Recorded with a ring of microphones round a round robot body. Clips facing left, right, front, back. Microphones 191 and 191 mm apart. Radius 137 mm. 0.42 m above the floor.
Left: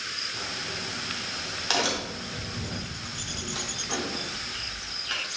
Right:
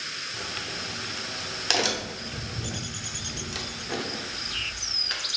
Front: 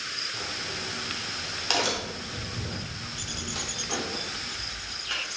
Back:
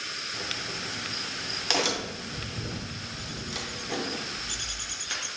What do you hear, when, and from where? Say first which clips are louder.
0.3 s a crack: even, even; 115° right, 0.6 m